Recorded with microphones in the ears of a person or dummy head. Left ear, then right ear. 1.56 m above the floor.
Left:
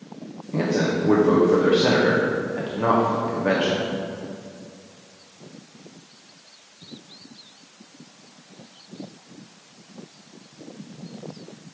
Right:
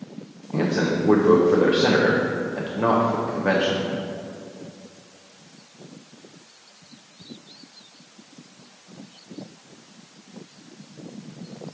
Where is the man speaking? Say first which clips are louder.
Even; centre (ahead or behind), 0.5 m.